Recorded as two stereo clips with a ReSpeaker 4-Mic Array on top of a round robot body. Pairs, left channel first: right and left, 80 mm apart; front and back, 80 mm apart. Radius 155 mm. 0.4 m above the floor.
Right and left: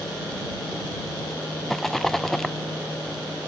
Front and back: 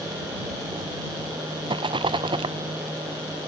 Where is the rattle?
175° right.